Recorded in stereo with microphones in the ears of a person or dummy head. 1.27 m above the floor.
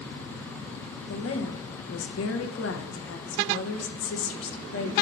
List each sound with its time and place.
1.1 s a woman speaking: 70° left (ahead or behind), 1.0 m